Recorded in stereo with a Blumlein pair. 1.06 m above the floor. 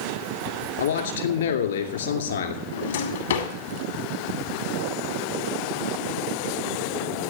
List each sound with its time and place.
0.8 s a man speaking: 65° left, 2.5 m
2.7 s a drawer: 65° left, 1.8 m